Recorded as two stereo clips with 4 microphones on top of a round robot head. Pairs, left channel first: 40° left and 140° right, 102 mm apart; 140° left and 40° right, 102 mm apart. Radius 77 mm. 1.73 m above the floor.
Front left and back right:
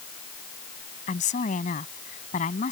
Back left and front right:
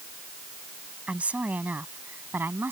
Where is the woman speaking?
40° left; by 2.7 s 30° left.